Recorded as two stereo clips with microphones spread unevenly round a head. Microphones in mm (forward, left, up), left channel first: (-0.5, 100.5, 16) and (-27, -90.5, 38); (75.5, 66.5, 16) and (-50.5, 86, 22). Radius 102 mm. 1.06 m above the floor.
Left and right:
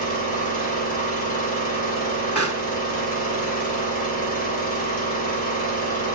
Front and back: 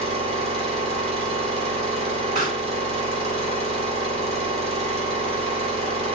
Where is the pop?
145° left, 3.5 m.